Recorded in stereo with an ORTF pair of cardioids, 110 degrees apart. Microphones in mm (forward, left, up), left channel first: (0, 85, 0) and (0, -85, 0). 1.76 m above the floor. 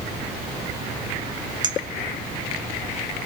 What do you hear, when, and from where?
1.6 s a clink: 25° right, 3.5 m